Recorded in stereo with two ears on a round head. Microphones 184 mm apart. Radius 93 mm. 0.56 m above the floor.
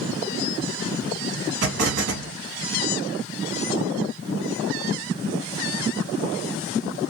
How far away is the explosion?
About 1.2 m.